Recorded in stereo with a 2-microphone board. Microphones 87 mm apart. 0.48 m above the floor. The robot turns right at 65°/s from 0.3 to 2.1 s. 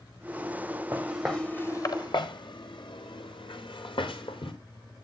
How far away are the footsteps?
About 5 m.